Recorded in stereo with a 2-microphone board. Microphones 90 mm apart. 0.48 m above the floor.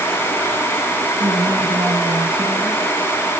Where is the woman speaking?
75° right (ahead or behind), 4.5 m.